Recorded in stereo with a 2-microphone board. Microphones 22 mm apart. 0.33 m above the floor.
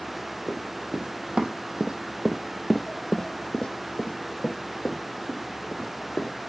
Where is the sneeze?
No sneeze in this recording.